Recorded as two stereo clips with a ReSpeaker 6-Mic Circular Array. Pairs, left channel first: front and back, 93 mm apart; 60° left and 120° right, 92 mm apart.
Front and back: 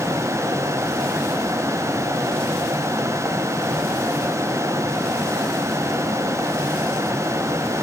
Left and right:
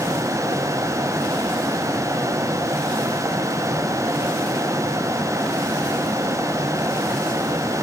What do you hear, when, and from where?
Only background noise.